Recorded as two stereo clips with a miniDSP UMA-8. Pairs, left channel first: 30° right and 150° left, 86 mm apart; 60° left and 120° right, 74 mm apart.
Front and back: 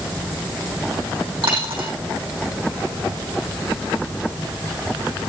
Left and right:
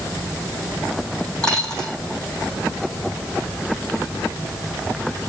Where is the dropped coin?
140° left, 3.5 m.